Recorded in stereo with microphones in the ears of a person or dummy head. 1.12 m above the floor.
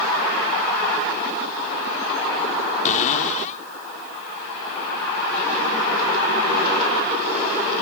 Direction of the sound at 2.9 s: 50° left (ahead or behind).